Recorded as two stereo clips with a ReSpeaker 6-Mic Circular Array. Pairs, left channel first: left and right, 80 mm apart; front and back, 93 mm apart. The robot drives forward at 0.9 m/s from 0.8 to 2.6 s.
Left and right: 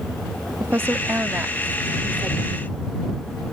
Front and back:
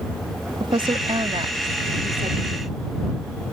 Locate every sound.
0.6 s a woman speaking: 150° right; by 2.7 s 165° right